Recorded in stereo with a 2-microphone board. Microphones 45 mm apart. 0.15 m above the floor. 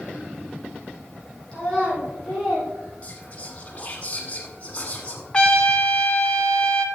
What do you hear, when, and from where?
1.5 s a child speaking: 20° left (ahead or behind), 5.5 m; by 3.6 s centre (ahead or behind), 4.5 m
3.0 s whispering: 30° left (ahead or behind), 1.3 m
5.3 s a trumpet: 25° left (ahead or behind), 1.2 m